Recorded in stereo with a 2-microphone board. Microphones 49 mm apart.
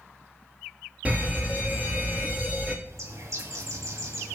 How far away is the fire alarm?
About 1.8 m.